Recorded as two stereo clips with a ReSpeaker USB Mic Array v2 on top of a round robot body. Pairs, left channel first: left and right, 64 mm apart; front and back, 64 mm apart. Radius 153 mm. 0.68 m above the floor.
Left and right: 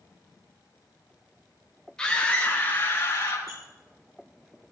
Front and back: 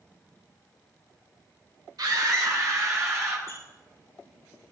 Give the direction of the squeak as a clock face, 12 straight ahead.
2 o'clock.